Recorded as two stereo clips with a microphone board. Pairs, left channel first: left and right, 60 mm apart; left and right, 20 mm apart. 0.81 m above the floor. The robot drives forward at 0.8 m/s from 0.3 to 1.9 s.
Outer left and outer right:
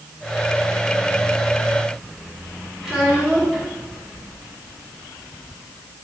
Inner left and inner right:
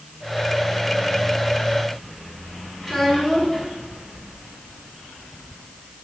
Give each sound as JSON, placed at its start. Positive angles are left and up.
{"t": 2.8, "sound": "a child speaking", "side_deg": 5, "distance_m": 2.5}